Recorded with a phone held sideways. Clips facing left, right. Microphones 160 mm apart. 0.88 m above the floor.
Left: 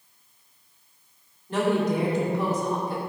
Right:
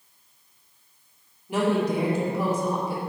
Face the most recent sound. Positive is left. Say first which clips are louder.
# even
turn(degrees=-10)  # may be behind; listen again after turning